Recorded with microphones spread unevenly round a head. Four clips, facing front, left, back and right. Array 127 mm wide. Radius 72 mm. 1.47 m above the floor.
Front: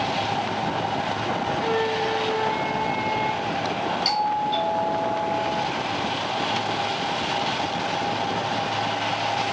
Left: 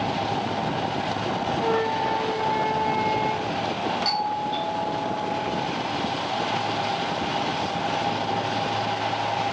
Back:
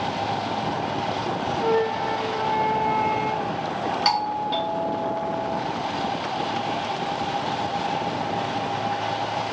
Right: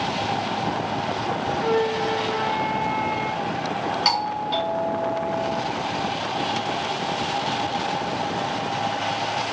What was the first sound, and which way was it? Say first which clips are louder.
A flute: right 2 dB, back 4 dB; 150° left.